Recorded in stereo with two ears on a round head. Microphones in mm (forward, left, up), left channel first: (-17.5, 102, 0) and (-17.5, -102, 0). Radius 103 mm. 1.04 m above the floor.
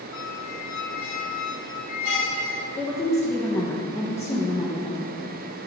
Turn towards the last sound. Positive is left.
turn(degrees=10)  # may be behind; listen again after turning